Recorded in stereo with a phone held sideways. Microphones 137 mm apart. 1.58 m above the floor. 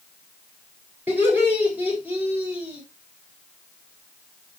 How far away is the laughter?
About 7 m.